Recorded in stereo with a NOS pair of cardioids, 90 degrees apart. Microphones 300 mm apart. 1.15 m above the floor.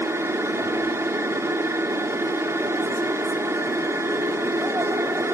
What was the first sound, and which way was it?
A machine running, 10° right.